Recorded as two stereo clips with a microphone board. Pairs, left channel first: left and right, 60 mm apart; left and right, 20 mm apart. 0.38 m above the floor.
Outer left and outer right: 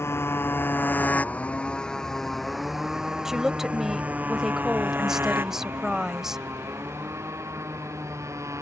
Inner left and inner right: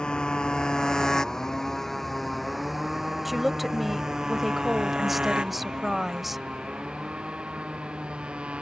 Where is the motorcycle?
45° left (ahead or behind); by 8.6 s 55° right (ahead or behind).